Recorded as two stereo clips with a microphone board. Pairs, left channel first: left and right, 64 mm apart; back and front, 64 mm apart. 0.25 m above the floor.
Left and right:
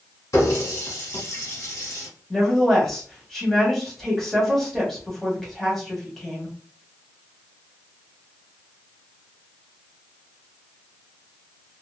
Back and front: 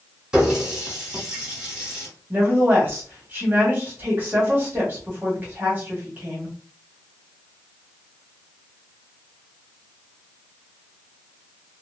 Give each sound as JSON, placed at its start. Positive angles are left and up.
{"t": 0.3, "sound": "a running tap", "azimuth_deg": 75, "distance_m": 1.5}
{"t": 2.3, "sound": "a woman speaking", "azimuth_deg": 5, "distance_m": 1.2}